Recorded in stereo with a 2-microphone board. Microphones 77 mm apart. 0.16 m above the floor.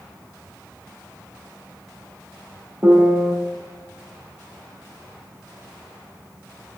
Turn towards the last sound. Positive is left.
turn(degrees=-20)  # may be behind; listen again after turning